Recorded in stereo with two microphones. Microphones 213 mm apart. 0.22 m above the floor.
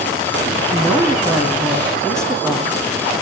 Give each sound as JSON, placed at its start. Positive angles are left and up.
{"t": 0.7, "sound": "a woman speaking", "side_deg": 0, "distance_m": 1.9}